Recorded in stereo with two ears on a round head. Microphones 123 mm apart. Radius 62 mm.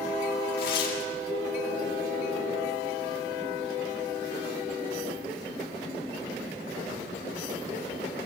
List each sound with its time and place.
0.6 s tearing paper: 85° left, 6.5 m